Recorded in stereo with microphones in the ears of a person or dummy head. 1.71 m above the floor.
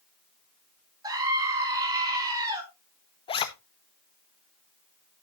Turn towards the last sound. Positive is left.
turn(degrees=25)  # may be behind; listen again after turning